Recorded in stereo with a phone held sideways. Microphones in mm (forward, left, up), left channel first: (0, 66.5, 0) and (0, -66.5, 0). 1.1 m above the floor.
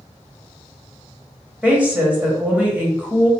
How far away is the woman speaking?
About 1.5 m.